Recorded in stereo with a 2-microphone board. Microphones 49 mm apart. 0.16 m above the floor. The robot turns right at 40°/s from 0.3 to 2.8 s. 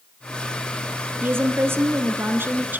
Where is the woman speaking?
110° right, 2 m; by 2.8 s 45° right, 2 m.